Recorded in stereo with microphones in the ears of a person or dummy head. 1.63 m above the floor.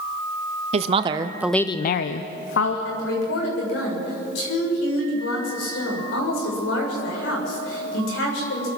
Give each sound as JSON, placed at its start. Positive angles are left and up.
{"t": 0.7, "sound": "a woman speaking", "side_deg": -35, "distance_m": 1.6}
{"t": 2.9, "sound": "a woman speaking", "side_deg": 80, "distance_m": 7.5}